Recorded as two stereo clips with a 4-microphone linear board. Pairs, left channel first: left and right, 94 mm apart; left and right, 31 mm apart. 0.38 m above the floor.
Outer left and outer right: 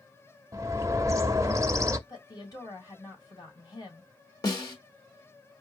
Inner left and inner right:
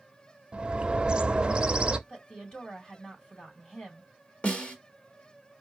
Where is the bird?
35° right (ahead or behind), 0.6 m.